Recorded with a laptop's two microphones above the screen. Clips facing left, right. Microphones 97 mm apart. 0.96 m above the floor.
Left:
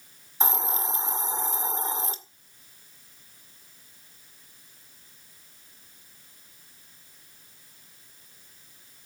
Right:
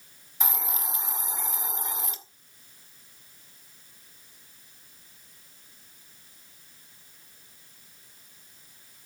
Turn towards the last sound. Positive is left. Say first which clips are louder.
# left 5 dB
turn(degrees=30)  # may be behind; listen again after turning